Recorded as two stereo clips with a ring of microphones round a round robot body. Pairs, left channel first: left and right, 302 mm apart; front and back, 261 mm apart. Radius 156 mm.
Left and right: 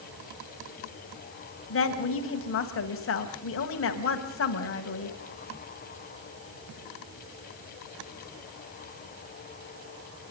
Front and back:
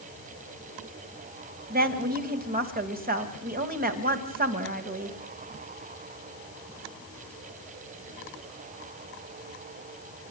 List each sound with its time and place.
1.7 s a woman speaking: 130° left, 2.5 m